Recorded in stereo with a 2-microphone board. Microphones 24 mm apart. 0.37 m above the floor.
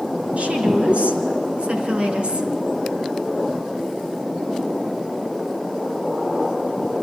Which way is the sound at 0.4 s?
70° right (ahead or behind).